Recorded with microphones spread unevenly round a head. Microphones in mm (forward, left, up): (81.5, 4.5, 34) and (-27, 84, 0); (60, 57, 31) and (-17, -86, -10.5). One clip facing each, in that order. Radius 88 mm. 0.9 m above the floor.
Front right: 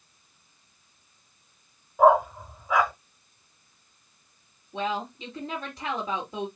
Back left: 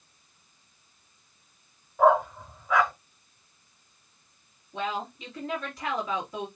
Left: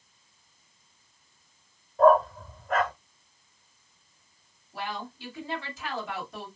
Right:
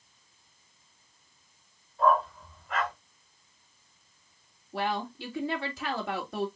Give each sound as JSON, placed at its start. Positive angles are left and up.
{"t": 2.0, "sound": "a dog barking", "azimuth_deg": 35, "distance_m": 1.2}
{"t": 4.7, "sound": "a woman speaking", "azimuth_deg": -110, "distance_m": 2.5}